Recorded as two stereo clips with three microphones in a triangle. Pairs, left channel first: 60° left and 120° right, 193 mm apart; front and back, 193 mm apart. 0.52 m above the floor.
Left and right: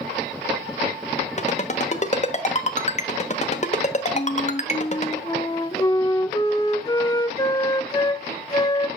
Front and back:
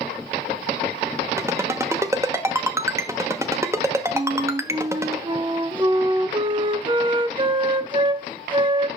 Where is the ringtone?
105° left, 1.2 m.